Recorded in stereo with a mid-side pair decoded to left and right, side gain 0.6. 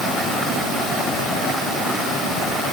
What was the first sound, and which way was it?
Only background noise.